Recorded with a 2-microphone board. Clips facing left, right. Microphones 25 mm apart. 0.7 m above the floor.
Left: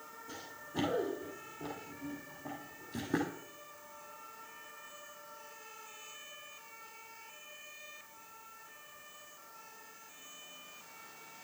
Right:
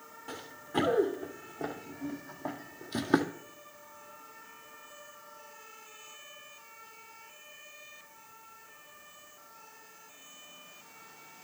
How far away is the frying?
I don't hear frying.